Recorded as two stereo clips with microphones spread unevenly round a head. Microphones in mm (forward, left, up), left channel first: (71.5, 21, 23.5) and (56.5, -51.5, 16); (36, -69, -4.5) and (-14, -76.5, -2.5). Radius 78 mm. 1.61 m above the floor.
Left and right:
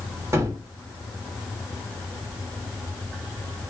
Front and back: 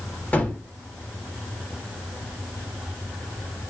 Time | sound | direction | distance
0.3 | a gunshot | 50° right | 2.5 m